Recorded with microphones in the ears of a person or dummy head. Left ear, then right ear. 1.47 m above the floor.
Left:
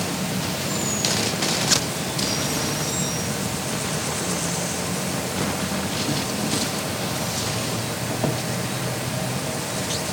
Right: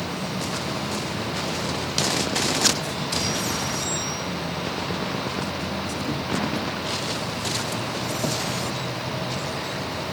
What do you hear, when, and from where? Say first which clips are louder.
0.0 s an insect: left 2 dB; 75° left (ahead or behind)